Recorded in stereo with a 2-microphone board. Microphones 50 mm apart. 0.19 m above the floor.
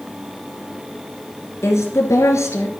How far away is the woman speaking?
About 2.5 m.